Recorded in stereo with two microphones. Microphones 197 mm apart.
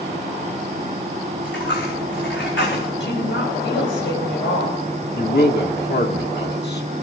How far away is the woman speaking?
About 4.5 m.